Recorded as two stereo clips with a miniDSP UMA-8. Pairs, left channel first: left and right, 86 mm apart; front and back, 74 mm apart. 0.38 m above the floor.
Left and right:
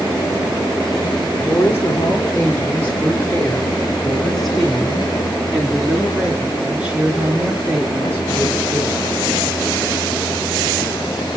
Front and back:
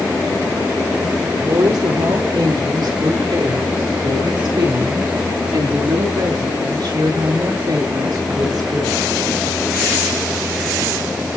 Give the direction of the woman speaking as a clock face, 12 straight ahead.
7 o'clock.